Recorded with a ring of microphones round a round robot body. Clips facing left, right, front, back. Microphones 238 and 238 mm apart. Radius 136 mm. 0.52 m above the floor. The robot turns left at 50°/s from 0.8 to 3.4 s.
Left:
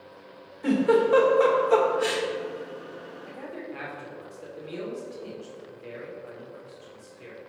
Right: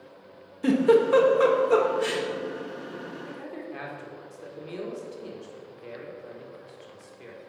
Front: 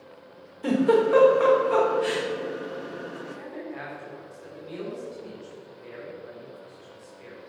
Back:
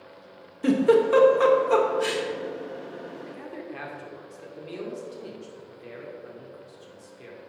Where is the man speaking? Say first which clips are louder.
Even, front 1 dB; 145° right, 2 m; by 7.4 s 150° right, 2 m.